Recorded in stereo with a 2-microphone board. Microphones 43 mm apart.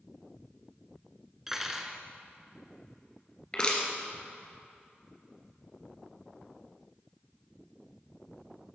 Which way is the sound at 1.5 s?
10° right (ahead or behind).